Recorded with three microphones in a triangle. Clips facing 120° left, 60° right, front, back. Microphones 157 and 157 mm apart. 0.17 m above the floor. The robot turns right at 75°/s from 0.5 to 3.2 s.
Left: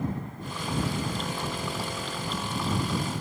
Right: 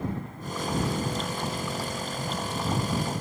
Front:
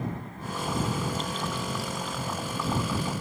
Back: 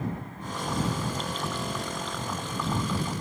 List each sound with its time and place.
Only background noise.